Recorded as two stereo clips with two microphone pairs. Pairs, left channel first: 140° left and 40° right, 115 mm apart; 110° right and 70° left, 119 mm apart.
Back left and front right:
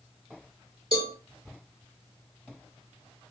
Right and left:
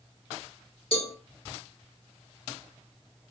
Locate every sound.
0.9 s a cowbell: 80° right, 2.5 m